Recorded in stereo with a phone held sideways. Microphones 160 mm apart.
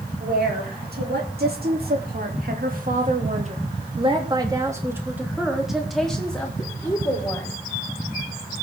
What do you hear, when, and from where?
0.2 s a woman speaking: 80° right, 4 m; by 7.6 s 15° left (ahead or behind), 4 m